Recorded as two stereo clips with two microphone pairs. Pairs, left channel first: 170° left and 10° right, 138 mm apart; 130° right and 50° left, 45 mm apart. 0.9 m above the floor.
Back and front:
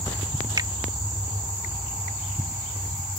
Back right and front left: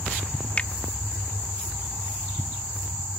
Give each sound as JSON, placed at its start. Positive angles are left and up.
{"t": 0.6, "sound": "a finger snap", "azimuth_deg": -70}